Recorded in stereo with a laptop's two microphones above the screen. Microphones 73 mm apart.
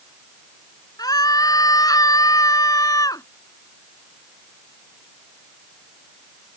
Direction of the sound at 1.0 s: 60° left (ahead or behind).